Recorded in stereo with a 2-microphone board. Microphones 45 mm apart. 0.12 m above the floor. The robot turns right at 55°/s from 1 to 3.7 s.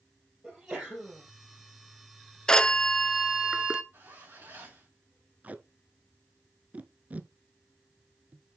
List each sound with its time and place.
0.4 s a sneeze: 10° right (ahead or behind), 3.5 m; by 1.2 s 20° right (ahead or behind), 3.5 m
2.5 s a phone ringing: 150° left, 0.7 m; by 3.8 s 145° right, 0.7 m
3.9 s a zipper: 60° right (ahead or behind), 4.5 m
5.4 s tape being pulled: 35° right (ahead or behind), 0.6 m